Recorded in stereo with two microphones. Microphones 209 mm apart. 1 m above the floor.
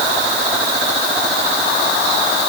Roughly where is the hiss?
No hiss in this recording.